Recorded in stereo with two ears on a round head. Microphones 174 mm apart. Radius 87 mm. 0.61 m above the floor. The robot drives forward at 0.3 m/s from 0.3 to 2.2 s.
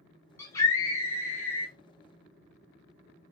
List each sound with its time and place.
0.4 s a scream: 15° left (ahead or behind), 1.3 m